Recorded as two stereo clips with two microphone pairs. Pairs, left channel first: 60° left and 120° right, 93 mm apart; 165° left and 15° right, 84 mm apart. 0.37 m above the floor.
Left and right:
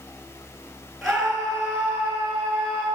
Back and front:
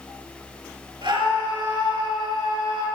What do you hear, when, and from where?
1.0 s a scream: 30° right, 4.5 m; by 2.9 s 20° right, 5.5 m